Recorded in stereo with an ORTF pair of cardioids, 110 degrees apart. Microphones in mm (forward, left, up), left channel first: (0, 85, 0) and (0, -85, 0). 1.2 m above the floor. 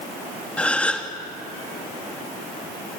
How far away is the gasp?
About 2.5 m.